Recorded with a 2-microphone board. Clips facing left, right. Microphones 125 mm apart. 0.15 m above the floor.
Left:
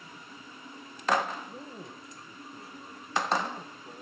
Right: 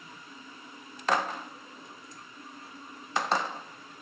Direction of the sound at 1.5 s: 50° left (ahead or behind).